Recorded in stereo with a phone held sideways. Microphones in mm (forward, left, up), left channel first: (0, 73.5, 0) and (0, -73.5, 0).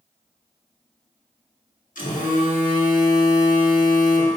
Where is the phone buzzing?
70° left (ahead or behind), 1.1 m.